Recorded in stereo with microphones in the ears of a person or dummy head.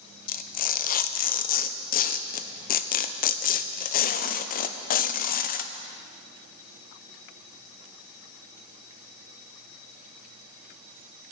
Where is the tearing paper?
45° left (ahead or behind), 0.5 m.